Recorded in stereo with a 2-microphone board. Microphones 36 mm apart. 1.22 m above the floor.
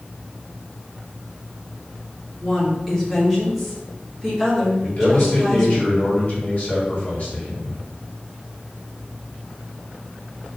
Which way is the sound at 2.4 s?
Centre (ahead or behind).